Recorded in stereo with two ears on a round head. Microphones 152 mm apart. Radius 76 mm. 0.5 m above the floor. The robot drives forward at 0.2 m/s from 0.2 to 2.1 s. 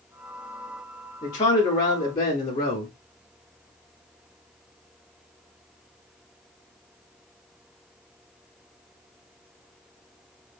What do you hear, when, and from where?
1.2 s a man speaking: 25° left (ahead or behind), 1.1 m; by 2.9 s 30° left (ahead or behind), 1.0 m